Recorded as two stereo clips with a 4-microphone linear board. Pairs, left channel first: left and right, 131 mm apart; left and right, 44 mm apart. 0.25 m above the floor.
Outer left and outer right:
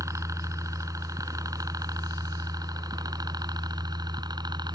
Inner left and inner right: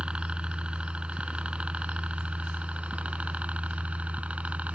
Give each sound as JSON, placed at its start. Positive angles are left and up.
{"t": 0.0, "sound": "a helicopter", "side_deg": -25}